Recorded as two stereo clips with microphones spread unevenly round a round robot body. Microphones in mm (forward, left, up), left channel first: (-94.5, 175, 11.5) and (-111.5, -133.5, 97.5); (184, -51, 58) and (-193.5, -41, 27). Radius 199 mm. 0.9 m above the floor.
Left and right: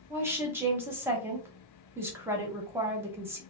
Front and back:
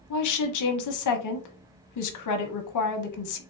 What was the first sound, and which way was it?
A woman speaking, 5° left.